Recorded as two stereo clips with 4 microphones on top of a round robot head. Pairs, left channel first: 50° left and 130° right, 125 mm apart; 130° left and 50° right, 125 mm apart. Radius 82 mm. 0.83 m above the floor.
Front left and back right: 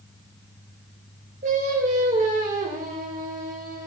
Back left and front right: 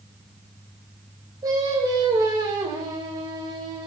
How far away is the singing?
About 4 m.